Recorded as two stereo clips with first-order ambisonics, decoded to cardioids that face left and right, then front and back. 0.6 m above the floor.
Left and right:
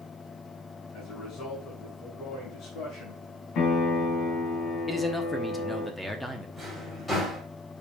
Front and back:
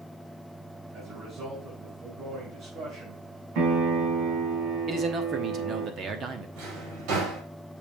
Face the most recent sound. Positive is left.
turn(degrees=170)